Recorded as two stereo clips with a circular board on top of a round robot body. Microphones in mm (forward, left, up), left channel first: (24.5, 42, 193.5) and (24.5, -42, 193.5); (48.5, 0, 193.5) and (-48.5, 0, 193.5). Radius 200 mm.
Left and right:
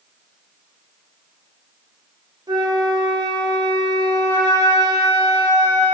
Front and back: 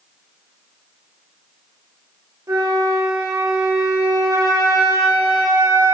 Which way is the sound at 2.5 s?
125° right.